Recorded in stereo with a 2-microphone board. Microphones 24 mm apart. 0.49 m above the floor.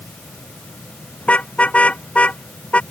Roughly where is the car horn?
Left.